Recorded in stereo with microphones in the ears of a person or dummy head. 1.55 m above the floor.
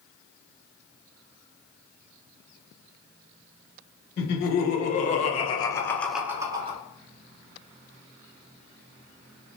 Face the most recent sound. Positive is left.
turn(degrees=-25)  # may be behind; listen again after turning